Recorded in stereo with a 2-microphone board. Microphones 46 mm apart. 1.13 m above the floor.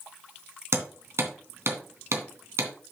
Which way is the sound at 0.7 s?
70° right (ahead or behind).